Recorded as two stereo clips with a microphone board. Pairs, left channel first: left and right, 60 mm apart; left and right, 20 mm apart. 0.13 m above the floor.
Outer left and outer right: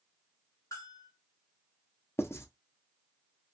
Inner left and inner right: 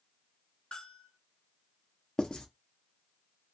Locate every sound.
0.7 s a bell: 60° left (ahead or behind), 1.4 m
2.2 s writing: 45° left (ahead or behind), 0.6 m